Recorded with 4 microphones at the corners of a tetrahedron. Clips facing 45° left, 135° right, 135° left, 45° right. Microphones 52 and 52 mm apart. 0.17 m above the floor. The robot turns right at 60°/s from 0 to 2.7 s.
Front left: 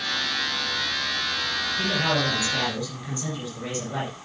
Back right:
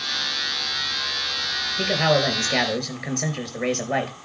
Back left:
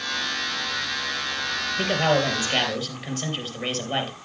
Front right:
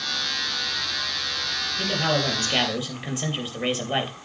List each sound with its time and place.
1.8 s a man speaking: straight behind, 3.5 m; by 4.2 s 125° right, 3.5 m